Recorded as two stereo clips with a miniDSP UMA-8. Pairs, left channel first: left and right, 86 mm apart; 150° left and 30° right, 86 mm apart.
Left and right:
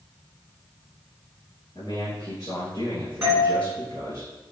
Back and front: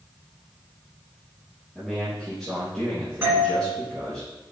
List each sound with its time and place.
1.8 s a man speaking: 60° left, 3 m
3.2 s a doorbell: 45° right, 1.8 m